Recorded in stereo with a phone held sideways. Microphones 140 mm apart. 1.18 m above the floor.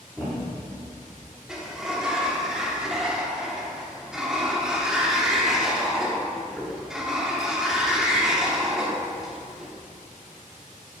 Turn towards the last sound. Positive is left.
turn(degrees=-5)  # may be behind; listen again after turning